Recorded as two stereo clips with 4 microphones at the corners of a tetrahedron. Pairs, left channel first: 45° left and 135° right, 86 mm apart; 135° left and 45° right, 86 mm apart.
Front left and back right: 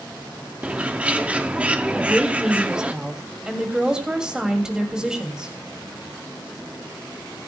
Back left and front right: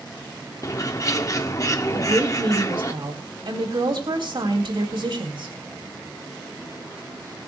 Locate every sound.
0.6 s a bird: 155° left, 1.0 m
1.9 s a woman speaking: 55° right, 3.5 m